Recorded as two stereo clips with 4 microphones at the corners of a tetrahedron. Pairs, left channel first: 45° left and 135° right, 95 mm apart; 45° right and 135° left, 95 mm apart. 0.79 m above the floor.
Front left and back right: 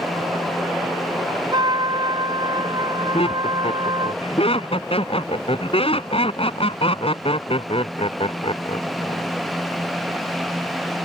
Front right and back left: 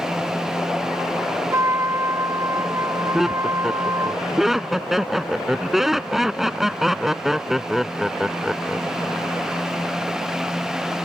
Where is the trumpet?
170° right.